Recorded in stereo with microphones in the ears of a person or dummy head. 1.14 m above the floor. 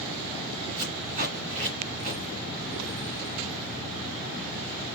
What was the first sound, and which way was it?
Tape being pulled, 35° right (ahead or behind).